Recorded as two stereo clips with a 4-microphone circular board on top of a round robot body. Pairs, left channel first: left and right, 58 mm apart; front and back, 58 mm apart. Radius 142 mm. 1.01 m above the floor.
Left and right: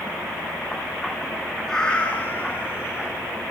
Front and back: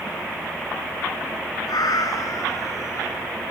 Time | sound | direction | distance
1.7 | a cat meowing | 10° left | 1.5 m